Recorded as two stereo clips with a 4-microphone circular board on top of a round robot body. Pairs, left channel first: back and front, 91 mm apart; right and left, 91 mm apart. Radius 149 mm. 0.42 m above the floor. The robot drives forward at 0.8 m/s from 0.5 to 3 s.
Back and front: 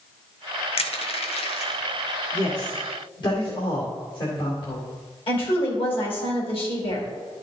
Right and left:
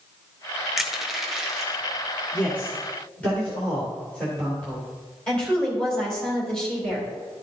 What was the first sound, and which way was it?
Crushing, straight behind.